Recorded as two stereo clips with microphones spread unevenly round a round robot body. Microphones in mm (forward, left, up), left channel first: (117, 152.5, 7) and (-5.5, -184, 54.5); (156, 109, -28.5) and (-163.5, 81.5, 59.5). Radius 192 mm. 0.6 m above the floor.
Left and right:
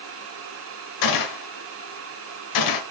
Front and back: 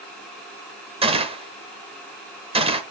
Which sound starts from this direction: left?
A gunshot, at 1.0 s.